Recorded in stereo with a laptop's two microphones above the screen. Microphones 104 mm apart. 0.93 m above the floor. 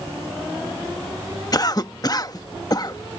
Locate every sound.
1.5 s a cough: 40° left (ahead or behind)